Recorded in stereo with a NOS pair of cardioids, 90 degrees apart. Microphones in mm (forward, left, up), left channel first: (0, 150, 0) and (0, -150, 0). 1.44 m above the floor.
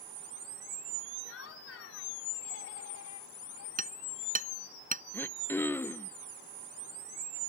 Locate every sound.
1.2 s laughter: 45° left; by 3.7 s 60° left
3.8 s hammering: 25° right
5.1 s throat clearing: 5° left